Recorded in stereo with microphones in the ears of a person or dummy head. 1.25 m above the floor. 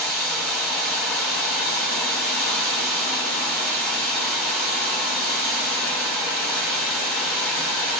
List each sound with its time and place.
0.0 s running water: 5° left (ahead or behind), 1.1 m